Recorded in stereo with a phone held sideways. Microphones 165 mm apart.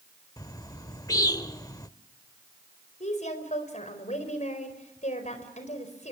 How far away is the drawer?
I don't hear a drawer.